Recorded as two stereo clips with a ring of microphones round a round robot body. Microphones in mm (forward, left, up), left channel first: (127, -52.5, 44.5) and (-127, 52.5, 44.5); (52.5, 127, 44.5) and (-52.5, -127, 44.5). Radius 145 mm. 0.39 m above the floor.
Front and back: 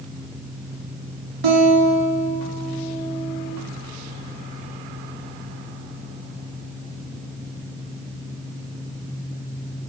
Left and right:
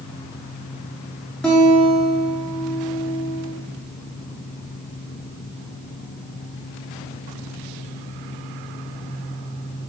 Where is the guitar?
155° left, 2 m.